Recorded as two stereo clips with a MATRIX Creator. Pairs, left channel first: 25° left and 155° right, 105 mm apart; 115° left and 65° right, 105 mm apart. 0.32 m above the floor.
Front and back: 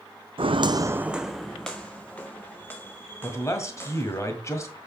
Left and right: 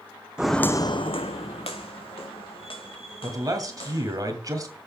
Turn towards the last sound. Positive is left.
turn(degrees=-30)